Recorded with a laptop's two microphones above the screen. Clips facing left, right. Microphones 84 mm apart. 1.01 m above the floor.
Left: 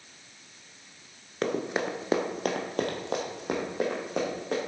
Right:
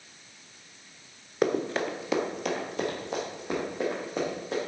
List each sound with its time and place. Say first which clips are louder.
1.4 s running footsteps: right 2 dB; 10° right (ahead or behind), 1.0 m; by 4.6 s 70° left (ahead or behind), 4.5 m